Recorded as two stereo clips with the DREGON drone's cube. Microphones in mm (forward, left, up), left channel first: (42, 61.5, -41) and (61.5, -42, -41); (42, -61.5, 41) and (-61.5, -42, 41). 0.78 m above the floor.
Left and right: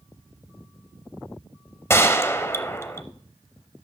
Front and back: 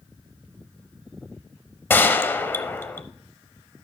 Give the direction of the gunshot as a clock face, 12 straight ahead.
11 o'clock.